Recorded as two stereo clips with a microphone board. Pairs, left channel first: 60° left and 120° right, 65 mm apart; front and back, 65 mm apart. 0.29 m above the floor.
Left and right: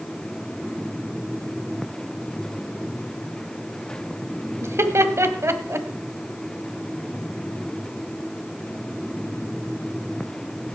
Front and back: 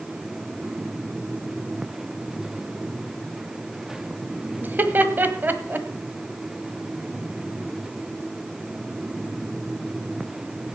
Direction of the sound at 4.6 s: 135° right.